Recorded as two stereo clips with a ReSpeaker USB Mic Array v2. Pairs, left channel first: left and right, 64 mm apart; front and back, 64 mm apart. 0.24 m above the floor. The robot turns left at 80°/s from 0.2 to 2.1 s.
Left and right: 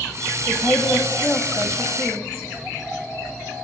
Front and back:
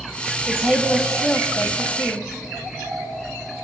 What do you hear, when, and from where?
0.5 s a woman speaking: 145° left, 1.6 m; by 2.3 s 15° left, 1.6 m